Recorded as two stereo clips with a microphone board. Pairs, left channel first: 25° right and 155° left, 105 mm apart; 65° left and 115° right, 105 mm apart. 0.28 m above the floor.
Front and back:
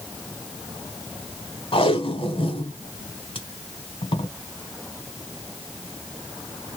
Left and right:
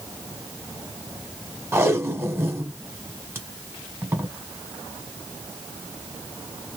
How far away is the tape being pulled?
About 0.9 m.